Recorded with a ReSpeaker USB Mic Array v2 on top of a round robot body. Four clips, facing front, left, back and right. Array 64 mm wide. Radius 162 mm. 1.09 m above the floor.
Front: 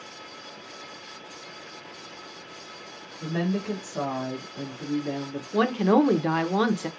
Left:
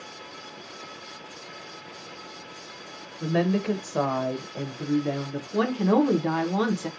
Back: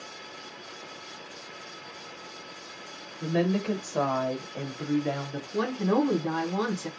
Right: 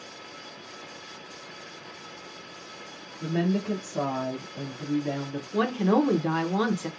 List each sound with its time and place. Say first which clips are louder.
3.2 s a woman speaking: left 3 dB, back 2 dB; 95° left, 1.2 m; by 5.4 s 170° left, 1.2 m
5.5 s a woman speaking: left 1 dB, front 5 dB; 5° right, 0.8 m